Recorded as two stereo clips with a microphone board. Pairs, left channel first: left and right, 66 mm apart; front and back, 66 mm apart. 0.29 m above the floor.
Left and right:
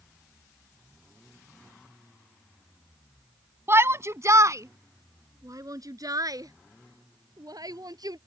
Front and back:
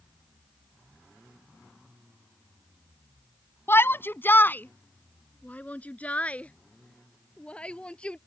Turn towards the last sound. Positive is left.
turn(degrees=-75)